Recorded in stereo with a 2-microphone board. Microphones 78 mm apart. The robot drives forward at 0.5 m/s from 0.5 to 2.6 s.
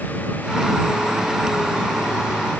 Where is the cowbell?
I don't hear a cowbell.